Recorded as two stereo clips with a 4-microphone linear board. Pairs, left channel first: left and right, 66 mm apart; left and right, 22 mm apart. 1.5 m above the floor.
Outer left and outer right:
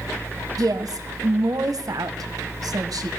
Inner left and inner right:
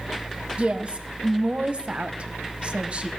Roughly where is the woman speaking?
Right.